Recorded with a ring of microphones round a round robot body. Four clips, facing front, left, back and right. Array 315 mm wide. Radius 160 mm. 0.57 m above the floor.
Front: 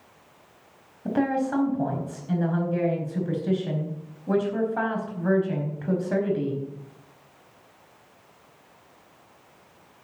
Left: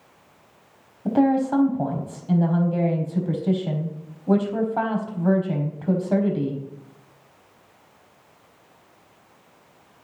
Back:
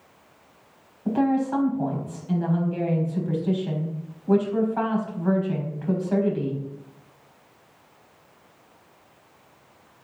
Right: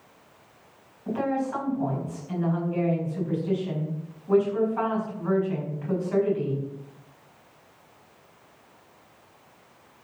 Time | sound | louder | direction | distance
1.1 | a woman speaking | left 8 dB, back 2 dB | 65° left | 4.5 m